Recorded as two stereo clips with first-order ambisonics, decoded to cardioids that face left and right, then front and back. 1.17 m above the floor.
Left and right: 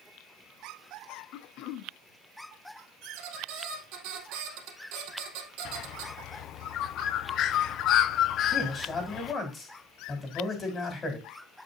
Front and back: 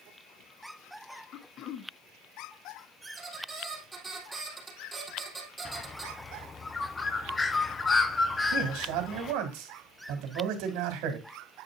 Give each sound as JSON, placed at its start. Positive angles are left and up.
{"t": 1.3, "sound": "throat clearing", "azimuth_deg": 50, "distance_m": 0.7}
{"t": 3.0, "sound": "a squeak", "azimuth_deg": -100, "distance_m": 3.0}
{"t": 5.7, "sound": "a bird", "azimuth_deg": 65, "distance_m": 0.6}
{"t": 8.5, "sound": "a man speaking", "azimuth_deg": 160, "distance_m": 3.5}